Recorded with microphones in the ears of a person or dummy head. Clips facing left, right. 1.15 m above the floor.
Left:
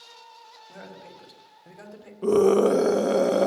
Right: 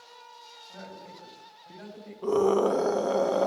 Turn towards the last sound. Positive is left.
turn(degrees=30)  # may be behind; listen again after turning